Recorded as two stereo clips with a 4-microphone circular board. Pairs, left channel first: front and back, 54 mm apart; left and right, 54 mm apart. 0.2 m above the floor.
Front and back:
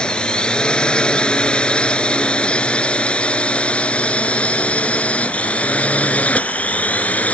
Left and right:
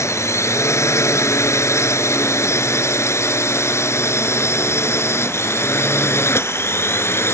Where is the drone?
70° left; by 7.3 s 60° left.